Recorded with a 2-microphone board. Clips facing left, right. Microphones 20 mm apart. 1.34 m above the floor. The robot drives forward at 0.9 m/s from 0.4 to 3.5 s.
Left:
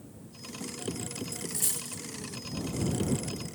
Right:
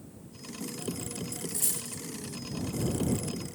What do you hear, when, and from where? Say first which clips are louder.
1.3 s a dropped coin: even; 5° left (ahead or behind), 5 m